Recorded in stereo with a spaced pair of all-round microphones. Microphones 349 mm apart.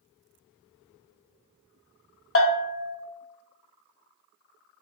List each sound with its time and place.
2.4 s a bell: 40° left (ahead or behind), 0.5 m